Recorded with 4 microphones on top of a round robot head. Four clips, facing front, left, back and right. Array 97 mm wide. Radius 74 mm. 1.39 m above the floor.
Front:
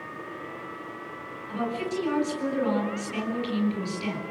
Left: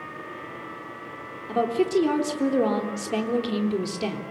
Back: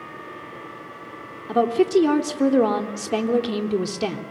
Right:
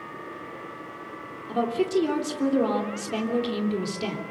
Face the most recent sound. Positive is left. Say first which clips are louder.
# left 2 dB, back 12 dB
turn(degrees=170)